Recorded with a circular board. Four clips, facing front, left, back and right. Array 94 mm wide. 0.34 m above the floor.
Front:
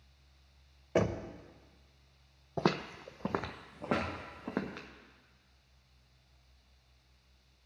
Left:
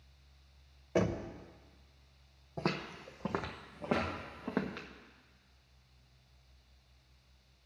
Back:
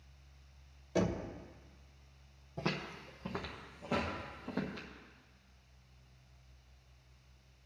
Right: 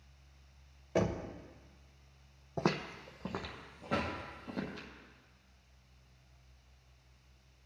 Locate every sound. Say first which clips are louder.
0.9 s knocking: left 1 dB, front 3 dB; 5° left, 0.8 m
2.6 s footsteps: right 3 dB, front 7 dB; 20° right, 0.7 m; by 4.9 s 45° left, 2 m
3.9 s knocking: left 2 dB, front 2 dB; 40° right, 3.5 m